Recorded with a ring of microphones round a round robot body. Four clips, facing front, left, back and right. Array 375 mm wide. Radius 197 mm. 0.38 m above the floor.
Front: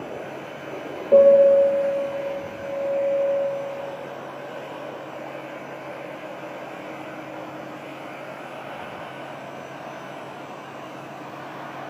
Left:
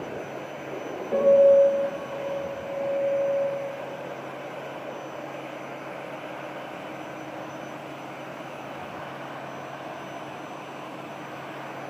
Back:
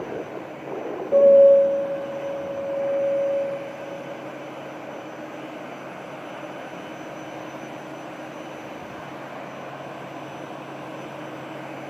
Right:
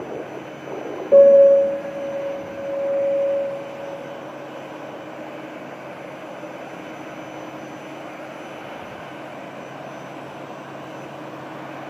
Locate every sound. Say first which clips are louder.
1.1 s a piano: right 6 dB, even; 45° right, 1.0 m